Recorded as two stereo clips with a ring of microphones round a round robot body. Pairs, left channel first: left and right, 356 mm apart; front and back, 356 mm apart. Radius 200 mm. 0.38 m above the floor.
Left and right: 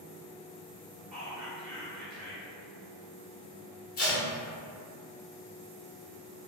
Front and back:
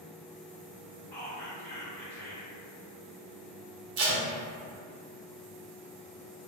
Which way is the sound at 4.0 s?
150° left.